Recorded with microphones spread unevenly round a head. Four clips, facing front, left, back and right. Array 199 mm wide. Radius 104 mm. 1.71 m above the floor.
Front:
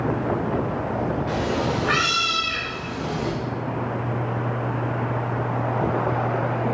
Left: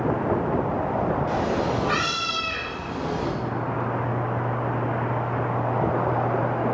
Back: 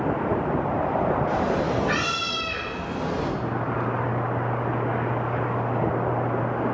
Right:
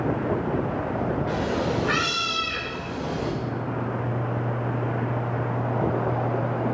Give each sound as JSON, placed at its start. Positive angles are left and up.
{"t": 1.3, "sound": "a cat meowing", "azimuth_deg": -50, "distance_m": 2.0}